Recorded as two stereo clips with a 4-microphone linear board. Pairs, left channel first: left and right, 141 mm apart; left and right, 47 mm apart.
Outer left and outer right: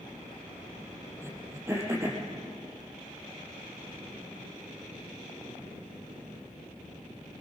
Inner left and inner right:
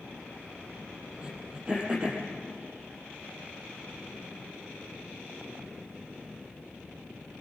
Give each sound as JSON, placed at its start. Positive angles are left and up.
{"t": 1.2, "sound": "throat clearing", "side_deg": -20, "distance_m": 5.0}